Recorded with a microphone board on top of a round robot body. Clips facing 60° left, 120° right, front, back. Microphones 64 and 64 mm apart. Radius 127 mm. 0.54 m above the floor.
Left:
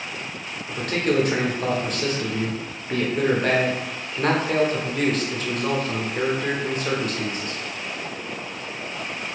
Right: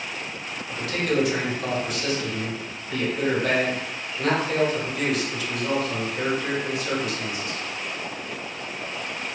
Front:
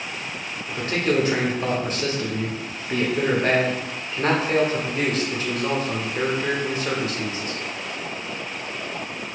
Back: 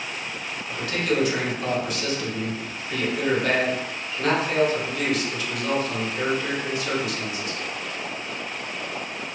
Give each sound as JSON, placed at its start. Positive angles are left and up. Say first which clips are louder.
{"t": 0.7, "sound": "a man speaking", "louder": "left 3 dB, front 2 dB", "azimuth_deg": 40, "distance_m": 1.0}